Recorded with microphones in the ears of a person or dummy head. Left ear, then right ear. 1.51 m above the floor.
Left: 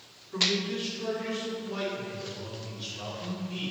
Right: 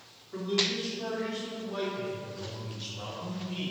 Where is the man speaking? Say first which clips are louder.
Left 2 dB; 10° right (ahead or behind), 4.5 m; by 3.7 s 20° right (ahead or behind), 7.5 m.